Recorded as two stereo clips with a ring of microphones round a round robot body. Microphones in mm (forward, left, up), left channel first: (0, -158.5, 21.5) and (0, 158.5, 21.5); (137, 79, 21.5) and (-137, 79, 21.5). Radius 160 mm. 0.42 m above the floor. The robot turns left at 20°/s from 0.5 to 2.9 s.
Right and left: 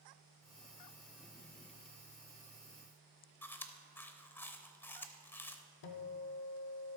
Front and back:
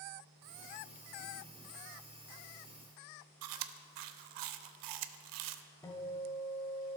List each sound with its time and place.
3.4 s chewing: 175° right, 0.5 m
5.8 s a guitar: 80° right, 1.0 m